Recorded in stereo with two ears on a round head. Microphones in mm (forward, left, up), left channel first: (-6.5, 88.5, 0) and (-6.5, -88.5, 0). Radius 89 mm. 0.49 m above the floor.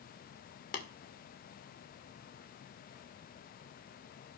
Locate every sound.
0.7 s tapping: 45° left (ahead or behind), 1.7 m